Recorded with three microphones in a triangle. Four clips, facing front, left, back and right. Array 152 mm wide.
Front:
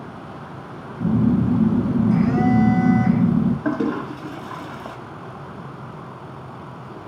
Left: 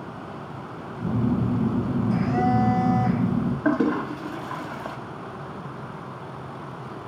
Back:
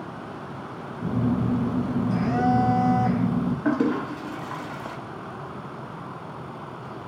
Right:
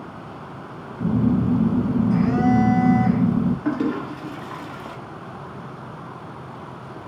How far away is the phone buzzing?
About 1.9 m.